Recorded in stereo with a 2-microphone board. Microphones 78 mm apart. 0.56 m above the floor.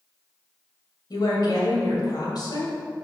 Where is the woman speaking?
60° left (ahead or behind), 2 m.